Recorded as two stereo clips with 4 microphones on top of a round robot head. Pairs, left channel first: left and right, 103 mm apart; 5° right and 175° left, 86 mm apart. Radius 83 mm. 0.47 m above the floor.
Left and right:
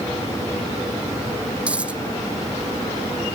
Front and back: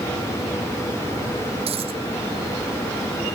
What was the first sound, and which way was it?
A dropped coin, 170° right.